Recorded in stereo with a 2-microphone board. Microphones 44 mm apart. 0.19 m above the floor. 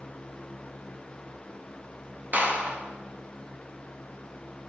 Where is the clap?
40° right (ahead or behind), 3 m.